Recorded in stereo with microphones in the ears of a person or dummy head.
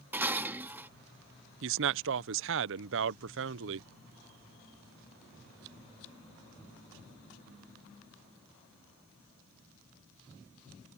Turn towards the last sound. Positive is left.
turn(degrees=-65)  # may be behind; listen again after turning